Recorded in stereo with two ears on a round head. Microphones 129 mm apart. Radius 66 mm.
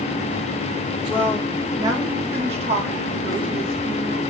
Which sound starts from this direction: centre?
A woman speaking, at 1.1 s.